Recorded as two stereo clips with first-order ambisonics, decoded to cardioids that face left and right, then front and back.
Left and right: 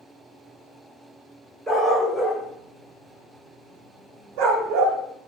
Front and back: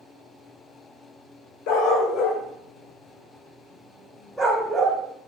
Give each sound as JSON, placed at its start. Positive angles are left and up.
{"t": 1.7, "sound": "a dog barking", "azimuth_deg": 0, "distance_m": 2.0}